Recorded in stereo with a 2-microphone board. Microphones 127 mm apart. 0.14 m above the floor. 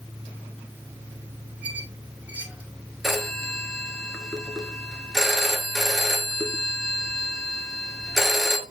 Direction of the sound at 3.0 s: Centre (ahead or behind).